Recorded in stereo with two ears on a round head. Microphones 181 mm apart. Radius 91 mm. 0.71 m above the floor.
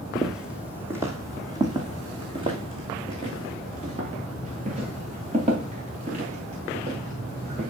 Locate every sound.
0.1 s footsteps: centre (ahead or behind), 1.2 m; by 7.7 s 35° right (ahead or behind), 5.5 m